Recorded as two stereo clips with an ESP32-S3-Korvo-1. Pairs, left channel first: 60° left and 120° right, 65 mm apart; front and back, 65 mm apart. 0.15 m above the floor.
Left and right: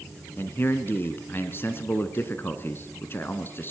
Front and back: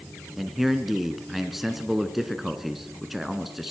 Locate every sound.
0.4 s a man speaking: 95° left, 1.5 m